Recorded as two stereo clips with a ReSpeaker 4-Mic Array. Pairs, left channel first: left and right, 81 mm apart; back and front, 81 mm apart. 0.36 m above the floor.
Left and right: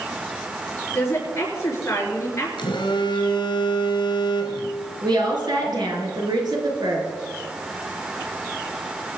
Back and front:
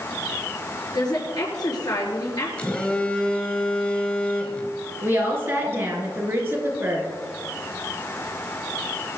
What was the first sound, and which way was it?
A woman speaking, 145° left.